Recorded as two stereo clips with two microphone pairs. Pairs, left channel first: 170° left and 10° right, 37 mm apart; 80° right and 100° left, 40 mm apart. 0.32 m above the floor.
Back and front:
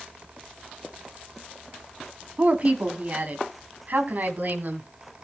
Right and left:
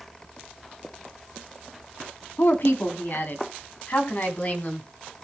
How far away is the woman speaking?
About 3 m.